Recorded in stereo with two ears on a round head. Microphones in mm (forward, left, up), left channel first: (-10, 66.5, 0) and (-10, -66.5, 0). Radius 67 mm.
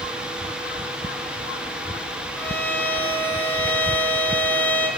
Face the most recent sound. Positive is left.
turn(degrees=10)  # may be behind; listen again after turning